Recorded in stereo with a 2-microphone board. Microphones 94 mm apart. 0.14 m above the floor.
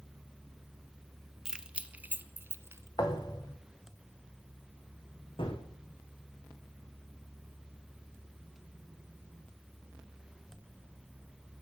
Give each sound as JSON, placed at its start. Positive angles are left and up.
{"t": 1.4, "sound": "keys jangling", "side_deg": -5, "distance_m": 0.9}
{"t": 3.0, "sound": "a thud", "side_deg": 45, "distance_m": 3.0}
{"t": 5.4, "sound": "a gunshot", "side_deg": 65, "distance_m": 3.5}